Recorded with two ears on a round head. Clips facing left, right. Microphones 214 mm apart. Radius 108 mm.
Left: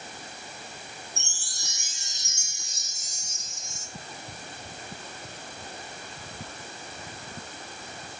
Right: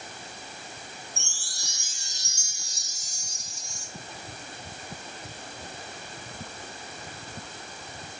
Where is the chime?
20° left (ahead or behind), 1.0 m.